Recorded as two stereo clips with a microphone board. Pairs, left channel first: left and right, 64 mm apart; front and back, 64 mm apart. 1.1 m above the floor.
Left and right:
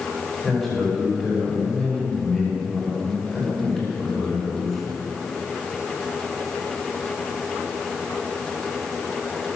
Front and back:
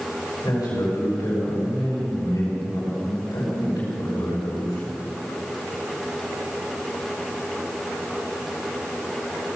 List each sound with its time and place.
0.4 s a man speaking: straight ahead, 6 m